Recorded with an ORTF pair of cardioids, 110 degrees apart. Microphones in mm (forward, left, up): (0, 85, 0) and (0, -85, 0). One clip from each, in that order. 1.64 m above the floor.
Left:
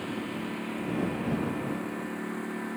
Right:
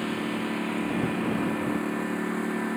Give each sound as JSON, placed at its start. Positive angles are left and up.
{"t": 0.0, "sound": "a lawn mower", "azimuth_deg": -35}